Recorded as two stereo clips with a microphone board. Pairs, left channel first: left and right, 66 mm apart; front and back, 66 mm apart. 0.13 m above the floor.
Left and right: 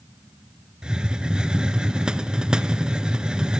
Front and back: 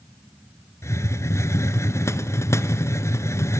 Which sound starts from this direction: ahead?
A hiss, at 0.8 s.